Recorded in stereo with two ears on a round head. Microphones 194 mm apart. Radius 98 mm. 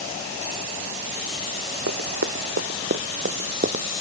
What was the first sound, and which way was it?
Running footsteps, 60° right (ahead or behind).